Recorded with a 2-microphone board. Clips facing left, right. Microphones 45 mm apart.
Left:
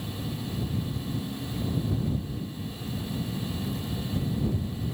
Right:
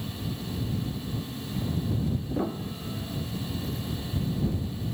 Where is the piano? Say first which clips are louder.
Right 6 dB; 70° right (ahead or behind).